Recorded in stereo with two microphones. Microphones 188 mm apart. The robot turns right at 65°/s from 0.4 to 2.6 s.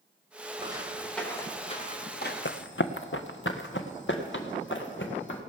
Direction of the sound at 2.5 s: 85° left.